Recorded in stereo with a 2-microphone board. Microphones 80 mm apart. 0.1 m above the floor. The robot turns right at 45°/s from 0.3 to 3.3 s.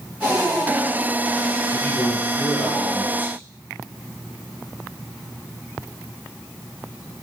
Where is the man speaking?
140° left, 3 m; by 3.4 s 145° right, 3 m.